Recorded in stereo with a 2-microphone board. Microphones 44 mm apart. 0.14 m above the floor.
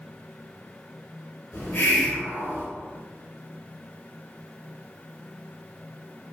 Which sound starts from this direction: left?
A hiss, at 1.5 s.